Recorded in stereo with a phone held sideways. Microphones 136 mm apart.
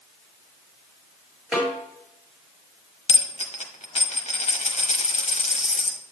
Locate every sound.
1.5 s a snare drum: 10° right (ahead or behind), 4.5 m
3.1 s a dropped coin: 55° left (ahead or behind), 1.1 m